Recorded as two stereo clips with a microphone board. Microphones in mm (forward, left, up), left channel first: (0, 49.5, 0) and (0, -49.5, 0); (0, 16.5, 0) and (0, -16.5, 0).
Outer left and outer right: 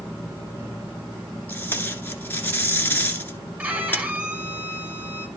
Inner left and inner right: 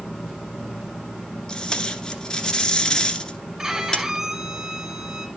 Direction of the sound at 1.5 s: 20° left (ahead or behind).